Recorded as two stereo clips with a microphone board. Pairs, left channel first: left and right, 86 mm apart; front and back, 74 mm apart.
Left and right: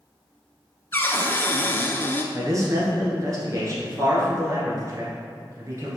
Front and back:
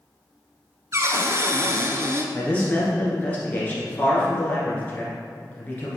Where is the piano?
I don't hear a piano.